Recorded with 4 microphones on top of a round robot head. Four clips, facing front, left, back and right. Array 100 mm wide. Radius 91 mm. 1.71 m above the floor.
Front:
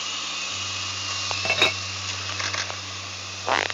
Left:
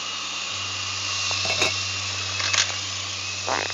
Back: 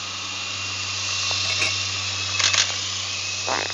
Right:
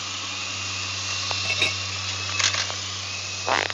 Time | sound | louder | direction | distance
1.4 | a clink | left 4 dB, front 8 dB | 25° left | ?